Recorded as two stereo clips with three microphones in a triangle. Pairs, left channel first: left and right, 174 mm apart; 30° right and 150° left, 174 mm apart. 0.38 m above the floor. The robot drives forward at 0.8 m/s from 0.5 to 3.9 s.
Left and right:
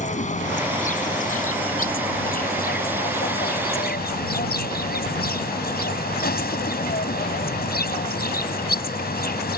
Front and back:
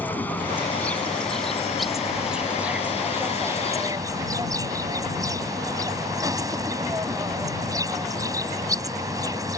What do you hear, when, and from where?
0.0 s an insect: 50° left; by 9.6 s 85° left